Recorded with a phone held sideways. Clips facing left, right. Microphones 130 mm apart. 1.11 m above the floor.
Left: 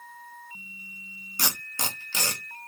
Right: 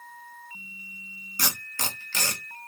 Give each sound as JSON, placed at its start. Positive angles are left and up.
{"t": 1.4, "sound": "tape being pulled", "side_deg": 15, "distance_m": 1.1}